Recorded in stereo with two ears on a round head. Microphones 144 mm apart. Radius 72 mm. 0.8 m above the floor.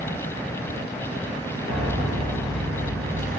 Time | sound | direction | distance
1.7 | a piano | 55° right (ahead or behind) | 4 m